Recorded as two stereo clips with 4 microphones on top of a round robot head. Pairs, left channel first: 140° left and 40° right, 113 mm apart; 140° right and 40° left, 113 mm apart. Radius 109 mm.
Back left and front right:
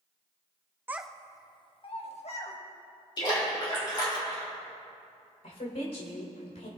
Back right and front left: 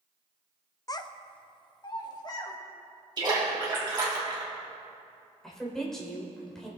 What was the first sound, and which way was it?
A child speaking, 100° right.